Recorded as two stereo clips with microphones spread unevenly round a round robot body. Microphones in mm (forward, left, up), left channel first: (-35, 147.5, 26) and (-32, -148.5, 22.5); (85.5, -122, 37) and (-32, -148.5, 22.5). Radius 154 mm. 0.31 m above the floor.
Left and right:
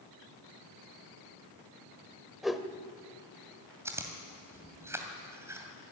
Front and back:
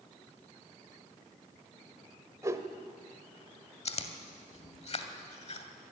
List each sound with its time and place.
2.4 s a whoosh: 175° right, 1.3 m
3.9 s chewing: 10° right, 2 m